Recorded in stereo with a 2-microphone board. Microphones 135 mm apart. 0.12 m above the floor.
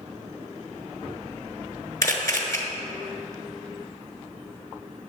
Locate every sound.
2.0 s a camera shutter: 25° left (ahead or behind), 1.1 m